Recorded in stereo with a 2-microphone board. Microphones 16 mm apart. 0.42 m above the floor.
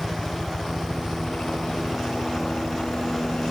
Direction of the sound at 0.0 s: 55° left (ahead or behind).